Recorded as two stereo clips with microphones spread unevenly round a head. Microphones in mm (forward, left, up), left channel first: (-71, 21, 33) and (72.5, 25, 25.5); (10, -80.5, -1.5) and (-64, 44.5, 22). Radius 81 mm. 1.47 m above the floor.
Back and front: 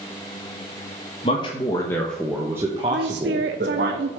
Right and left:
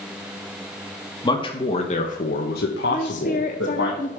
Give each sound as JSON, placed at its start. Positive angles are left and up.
{"t": 1.2, "sound": "a man speaking", "azimuth_deg": -120, "distance_m": 1.4}
{"t": 2.9, "sound": "a woman speaking", "azimuth_deg": -10, "distance_m": 0.7}